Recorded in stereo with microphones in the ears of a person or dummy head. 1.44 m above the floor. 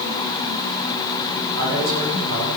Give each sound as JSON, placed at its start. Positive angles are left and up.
{"t": 1.6, "sound": "a man speaking", "side_deg": -65, "distance_m": 8.0}